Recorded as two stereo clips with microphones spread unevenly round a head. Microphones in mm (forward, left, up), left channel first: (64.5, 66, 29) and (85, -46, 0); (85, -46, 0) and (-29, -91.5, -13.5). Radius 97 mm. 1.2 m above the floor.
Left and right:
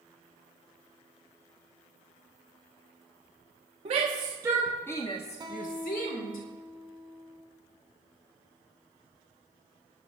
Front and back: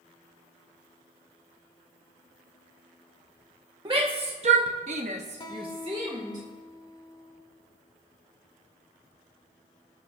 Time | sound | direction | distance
3.9 | a shout | 110° right | 1.0 m
5.4 | a guitar | 25° right | 1.9 m